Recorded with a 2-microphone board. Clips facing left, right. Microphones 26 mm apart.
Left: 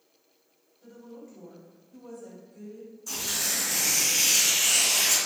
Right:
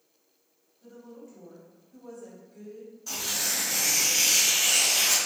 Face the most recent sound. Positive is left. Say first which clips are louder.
# even
turn(degrees=-30)  # may be behind; listen again after turning